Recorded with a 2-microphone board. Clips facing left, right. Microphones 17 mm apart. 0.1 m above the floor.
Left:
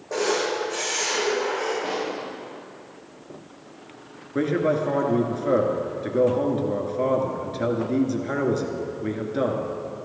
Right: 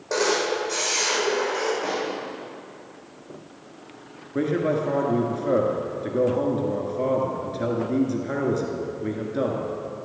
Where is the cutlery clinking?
I don't hear cutlery clinking.